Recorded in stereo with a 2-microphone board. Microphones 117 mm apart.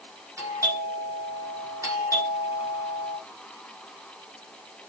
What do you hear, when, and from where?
0.4 s a doorbell: 30° right (ahead or behind), 5.5 m